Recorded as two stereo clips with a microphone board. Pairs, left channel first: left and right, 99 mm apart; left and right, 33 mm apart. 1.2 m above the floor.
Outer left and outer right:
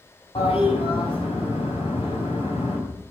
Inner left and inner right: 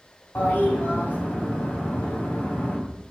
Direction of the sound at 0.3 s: 70° left (ahead or behind).